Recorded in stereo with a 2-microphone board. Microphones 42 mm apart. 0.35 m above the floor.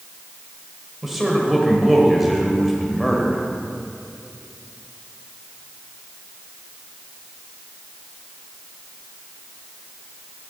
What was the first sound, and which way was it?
A man speaking, 5° right (ahead or behind).